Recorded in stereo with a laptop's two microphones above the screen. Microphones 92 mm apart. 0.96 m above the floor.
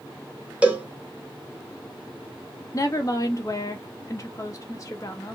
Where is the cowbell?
15° right (ahead or behind), 0.9 m.